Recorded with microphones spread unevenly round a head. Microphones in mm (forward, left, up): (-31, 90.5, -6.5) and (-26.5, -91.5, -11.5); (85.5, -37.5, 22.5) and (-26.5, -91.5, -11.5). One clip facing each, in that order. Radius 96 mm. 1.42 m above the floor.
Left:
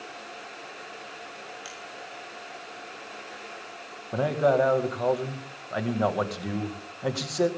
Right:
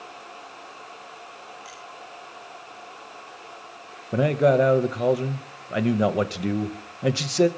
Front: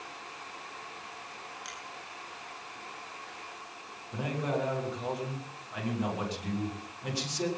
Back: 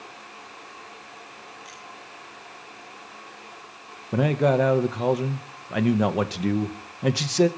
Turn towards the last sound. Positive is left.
turn(degrees=-150)